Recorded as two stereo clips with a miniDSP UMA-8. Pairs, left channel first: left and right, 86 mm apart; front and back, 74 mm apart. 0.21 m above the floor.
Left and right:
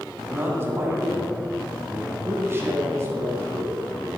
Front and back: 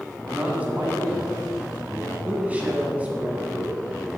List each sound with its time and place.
0.3 s a man speaking: 125° right, 1.9 m